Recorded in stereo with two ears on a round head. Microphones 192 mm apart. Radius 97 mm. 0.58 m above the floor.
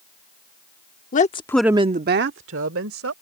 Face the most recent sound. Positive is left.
turn(degrees=-75)  # may be behind; listen again after turning